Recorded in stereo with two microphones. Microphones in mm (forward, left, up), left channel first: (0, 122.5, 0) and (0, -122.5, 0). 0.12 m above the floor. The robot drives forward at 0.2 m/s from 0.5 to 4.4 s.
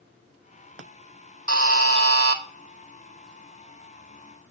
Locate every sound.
1.5 s a buzzer: 60° right (ahead or behind), 0.8 m; by 2.4 s 70° right (ahead or behind), 0.7 m